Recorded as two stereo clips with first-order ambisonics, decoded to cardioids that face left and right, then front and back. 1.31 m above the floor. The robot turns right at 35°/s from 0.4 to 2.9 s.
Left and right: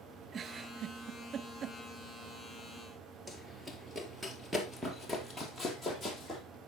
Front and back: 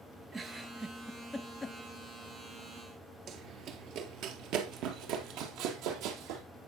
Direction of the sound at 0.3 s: 125° right.